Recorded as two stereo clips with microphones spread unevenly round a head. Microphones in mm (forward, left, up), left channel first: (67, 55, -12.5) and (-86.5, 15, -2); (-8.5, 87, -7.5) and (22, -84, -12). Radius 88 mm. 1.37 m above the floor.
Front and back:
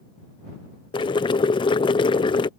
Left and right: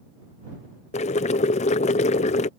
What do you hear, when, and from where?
0.9 s boiling: 60° left